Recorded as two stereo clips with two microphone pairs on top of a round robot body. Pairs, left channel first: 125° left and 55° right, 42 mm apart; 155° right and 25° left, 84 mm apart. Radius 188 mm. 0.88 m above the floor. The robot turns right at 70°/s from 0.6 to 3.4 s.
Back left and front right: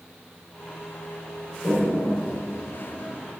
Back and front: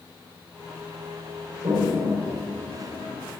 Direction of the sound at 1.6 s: 70° left.